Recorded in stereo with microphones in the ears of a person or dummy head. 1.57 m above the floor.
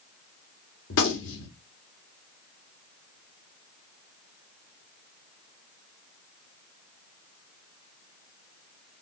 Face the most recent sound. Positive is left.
turn(degrees=70)  # may be behind; listen again after turning